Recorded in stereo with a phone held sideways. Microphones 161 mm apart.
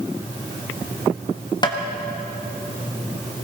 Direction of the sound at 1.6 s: 25° left (ahead or behind).